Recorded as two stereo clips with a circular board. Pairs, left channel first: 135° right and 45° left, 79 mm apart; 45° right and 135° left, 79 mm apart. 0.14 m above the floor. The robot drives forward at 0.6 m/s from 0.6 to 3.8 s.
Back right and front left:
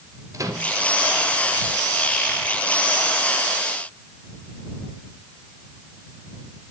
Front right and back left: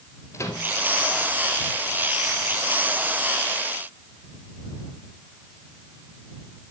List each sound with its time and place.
0.3 s a microwave: 5° left, 1.7 m